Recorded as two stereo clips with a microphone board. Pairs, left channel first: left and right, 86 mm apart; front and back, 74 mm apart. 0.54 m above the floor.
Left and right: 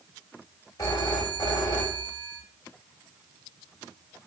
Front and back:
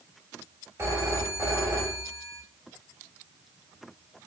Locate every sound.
0.8 s a phone ringing: 135° left, 1.7 m